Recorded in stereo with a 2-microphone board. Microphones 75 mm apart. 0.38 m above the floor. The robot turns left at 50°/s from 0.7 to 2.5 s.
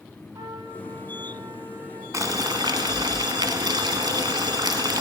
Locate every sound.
0.3 s a trumpet: 60° right, 2.5 m; by 2.0 s 125° right, 2.5 m
2.1 s boiling: 50° right (ahead or behind), 0.9 m; by 5.0 s 65° right (ahead or behind), 0.9 m